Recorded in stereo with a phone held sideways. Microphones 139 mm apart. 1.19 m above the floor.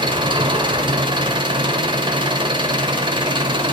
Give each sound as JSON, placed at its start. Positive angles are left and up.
{"t": 0.0, "sound": "an engine running", "side_deg": -35, "distance_m": 1.3}